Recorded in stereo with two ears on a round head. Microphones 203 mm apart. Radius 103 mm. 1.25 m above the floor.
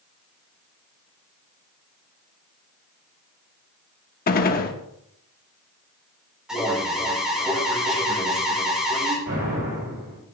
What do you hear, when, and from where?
4.3 s a gunshot: 40° left (ahead or behind), 0.9 m
6.5 s an alarm: 5° right (ahead or behind), 3 m
9.3 s an explosion: 65° right (ahead or behind), 6.5 m